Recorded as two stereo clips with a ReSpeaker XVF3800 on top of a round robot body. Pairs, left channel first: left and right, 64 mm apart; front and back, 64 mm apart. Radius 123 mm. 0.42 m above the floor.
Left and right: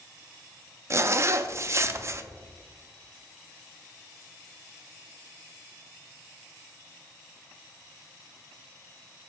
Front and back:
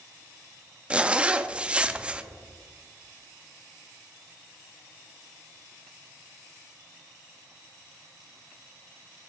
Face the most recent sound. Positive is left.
turn(degrees=-110)